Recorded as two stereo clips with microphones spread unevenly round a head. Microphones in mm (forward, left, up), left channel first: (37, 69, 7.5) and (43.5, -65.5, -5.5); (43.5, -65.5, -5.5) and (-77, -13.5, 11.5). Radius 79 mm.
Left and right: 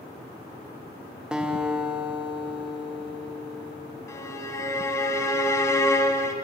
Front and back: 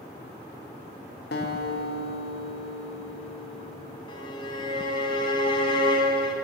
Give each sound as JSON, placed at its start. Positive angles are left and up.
{"t": 1.3, "sound": "a guitar", "azimuth_deg": -5, "distance_m": 2.0}
{"t": 4.1, "sound": "a violin", "azimuth_deg": 35, "distance_m": 2.5}